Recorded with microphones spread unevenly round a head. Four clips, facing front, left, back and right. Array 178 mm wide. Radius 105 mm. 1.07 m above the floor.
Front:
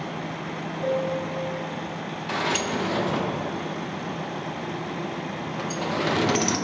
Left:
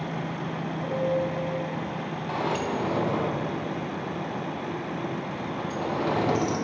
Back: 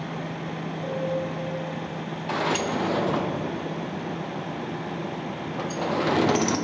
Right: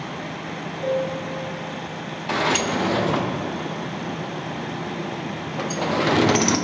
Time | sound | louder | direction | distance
0.8 | a piano | right 2 dB, front 3 dB | 20° right | 1.2 m
2.3 | a sliding door | right 6 dB, back 1 dB | 75° right | 0.6 m